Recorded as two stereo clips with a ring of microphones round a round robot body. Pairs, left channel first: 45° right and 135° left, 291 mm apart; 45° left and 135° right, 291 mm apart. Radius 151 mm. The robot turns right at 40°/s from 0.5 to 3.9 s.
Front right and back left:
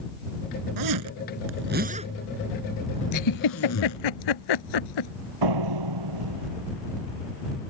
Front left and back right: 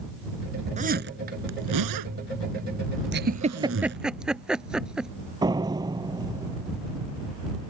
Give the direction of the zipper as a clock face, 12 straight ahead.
7 o'clock.